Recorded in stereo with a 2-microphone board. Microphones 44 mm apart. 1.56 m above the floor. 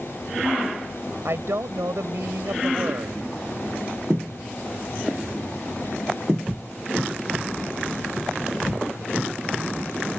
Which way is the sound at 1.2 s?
75° right (ahead or behind).